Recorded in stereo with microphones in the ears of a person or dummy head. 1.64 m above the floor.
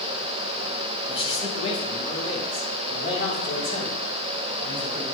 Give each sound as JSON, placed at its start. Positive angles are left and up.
{"t": 1.1, "sound": "a man speaking", "side_deg": 30, "distance_m": 1.1}